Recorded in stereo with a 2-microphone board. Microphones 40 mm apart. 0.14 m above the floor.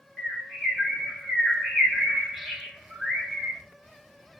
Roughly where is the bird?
Centre.